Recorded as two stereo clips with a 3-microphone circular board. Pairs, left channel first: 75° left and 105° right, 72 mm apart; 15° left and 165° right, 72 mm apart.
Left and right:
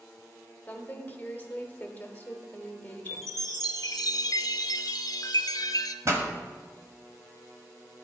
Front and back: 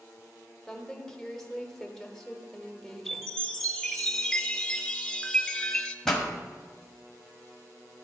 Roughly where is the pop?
Ahead right.